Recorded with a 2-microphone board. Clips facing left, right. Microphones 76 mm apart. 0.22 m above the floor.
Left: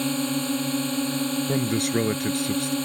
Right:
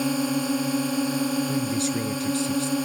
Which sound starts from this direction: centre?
A drone, at 0.0 s.